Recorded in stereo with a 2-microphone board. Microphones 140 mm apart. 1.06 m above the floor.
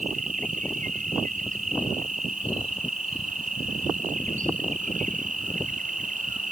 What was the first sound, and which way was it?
An insect, 70° right (ahead or behind).